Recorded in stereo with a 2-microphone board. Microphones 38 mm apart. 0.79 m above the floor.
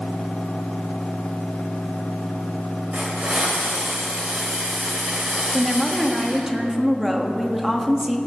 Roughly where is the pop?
No pop in this recording.